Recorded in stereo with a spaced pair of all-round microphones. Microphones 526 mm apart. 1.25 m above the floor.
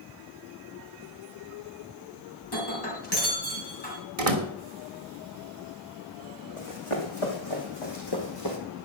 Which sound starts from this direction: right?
A door slam, at 4.2 s.